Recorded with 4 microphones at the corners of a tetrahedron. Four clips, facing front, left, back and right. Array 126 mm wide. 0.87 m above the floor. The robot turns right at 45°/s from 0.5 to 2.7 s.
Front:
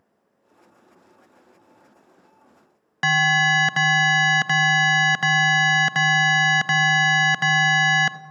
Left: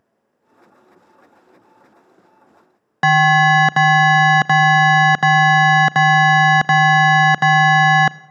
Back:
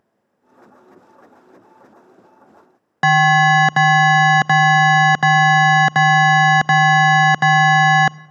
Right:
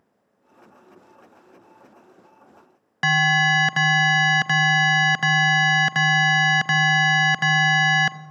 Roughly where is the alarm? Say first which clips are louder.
Left 8 dB, back 8 dB; behind left.